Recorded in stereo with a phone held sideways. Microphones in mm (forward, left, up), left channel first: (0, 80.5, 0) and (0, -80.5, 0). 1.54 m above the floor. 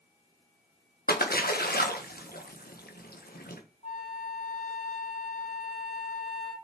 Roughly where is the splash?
Left.